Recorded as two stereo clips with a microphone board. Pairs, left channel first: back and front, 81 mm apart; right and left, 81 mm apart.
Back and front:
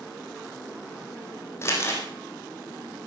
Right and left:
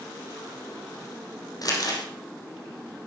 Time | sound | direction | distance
1.6 | crumpling | 125° right | 4.5 m